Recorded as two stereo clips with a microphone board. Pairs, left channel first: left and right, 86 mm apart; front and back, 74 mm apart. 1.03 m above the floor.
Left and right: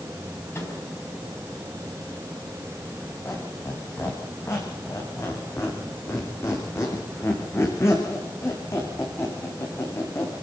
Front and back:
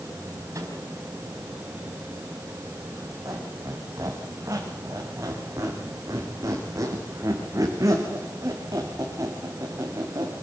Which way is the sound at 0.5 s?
145° left.